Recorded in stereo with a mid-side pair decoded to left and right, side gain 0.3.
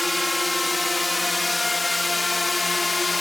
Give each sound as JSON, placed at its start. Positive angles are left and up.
{"t": 0.0, "sound": "a drone", "azimuth_deg": 10}